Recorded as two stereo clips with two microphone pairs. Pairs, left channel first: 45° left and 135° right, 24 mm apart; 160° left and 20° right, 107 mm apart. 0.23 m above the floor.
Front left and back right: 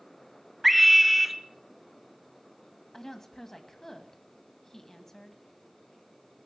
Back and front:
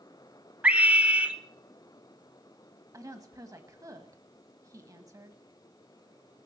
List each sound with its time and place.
0.6 s a scream: 70° right, 0.9 m
2.9 s a woman speaking: 10° right, 1.6 m